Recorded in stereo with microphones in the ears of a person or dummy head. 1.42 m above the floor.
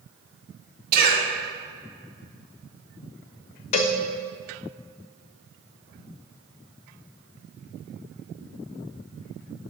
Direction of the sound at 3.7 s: 35° left (ahead or behind).